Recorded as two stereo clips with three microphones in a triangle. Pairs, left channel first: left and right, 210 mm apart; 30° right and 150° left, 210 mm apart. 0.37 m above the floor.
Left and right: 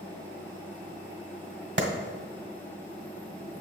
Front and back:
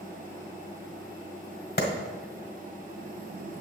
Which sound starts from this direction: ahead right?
A clap, at 1.8 s.